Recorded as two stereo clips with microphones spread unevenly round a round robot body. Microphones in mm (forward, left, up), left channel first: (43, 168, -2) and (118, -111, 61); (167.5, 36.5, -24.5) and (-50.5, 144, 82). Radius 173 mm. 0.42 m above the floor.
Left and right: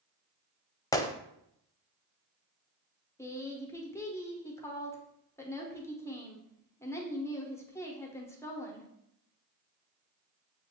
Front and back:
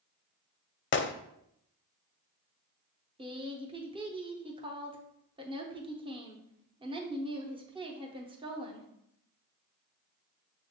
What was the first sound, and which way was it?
A gunshot, 25° left.